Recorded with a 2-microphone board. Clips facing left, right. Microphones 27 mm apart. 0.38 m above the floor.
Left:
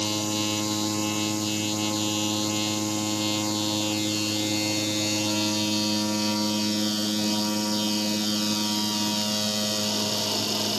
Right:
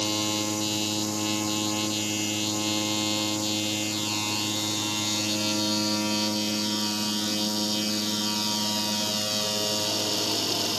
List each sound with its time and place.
Only background noise.